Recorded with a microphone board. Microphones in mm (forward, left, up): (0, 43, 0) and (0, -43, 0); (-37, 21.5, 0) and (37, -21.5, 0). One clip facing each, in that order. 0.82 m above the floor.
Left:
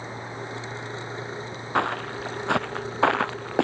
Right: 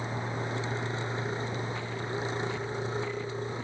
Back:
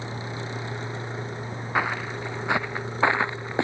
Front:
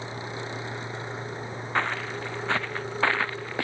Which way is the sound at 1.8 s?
70° left.